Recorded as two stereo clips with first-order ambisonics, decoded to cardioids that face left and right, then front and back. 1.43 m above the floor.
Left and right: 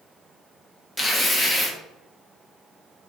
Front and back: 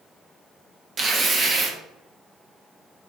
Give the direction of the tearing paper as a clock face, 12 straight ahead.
7 o'clock.